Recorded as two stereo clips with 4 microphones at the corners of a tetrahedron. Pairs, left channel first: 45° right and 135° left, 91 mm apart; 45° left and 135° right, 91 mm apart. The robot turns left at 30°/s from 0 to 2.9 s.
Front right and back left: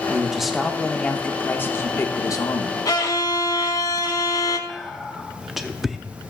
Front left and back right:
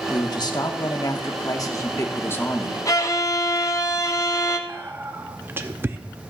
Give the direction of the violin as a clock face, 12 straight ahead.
12 o'clock.